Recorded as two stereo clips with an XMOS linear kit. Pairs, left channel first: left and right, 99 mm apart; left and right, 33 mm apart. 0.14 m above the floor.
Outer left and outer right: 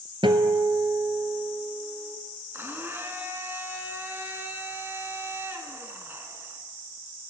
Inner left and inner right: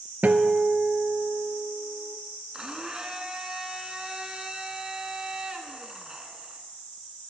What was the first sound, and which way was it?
A guitar, 65° right (ahead or behind).